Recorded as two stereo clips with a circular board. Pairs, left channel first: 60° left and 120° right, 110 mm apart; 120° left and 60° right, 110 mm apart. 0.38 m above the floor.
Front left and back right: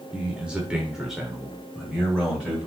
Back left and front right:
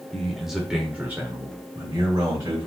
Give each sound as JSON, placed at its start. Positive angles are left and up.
{"t": 0.1, "sound": "a man speaking", "azimuth_deg": -170, "distance_m": 1.0}